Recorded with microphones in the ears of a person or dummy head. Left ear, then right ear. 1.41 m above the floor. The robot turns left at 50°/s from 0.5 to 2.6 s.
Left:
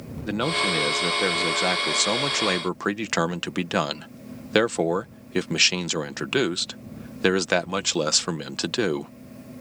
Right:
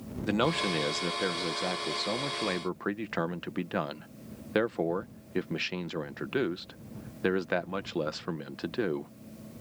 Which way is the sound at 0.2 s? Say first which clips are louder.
Left 4 dB; 170° right.